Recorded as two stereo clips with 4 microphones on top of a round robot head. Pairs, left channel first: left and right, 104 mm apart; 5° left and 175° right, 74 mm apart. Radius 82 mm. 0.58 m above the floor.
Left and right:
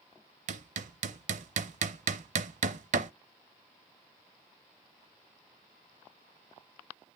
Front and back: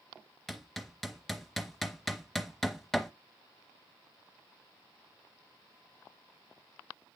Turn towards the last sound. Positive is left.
turn(degrees=-80)